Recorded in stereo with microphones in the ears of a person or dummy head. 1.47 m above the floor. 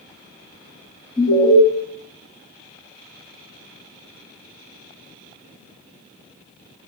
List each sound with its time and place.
1.2 s an alarm: 20° left (ahead or behind), 1.3 m